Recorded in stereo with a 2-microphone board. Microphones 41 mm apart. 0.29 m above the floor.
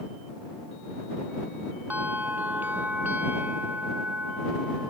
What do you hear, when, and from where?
1.9 s a bell: 45° right (ahead or behind)